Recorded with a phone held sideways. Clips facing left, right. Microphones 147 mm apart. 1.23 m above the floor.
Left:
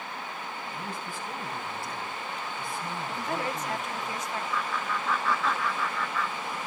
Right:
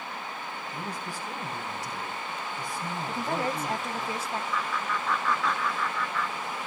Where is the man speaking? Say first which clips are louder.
Right 1 dB; 40° right (ahead or behind), 7 m.